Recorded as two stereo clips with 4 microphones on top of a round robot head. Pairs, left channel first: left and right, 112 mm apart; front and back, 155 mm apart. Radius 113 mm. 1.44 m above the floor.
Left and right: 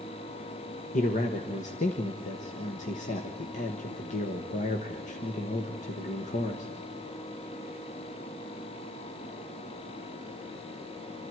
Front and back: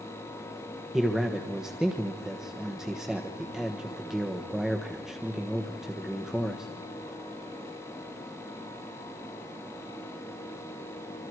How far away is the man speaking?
About 1.4 m.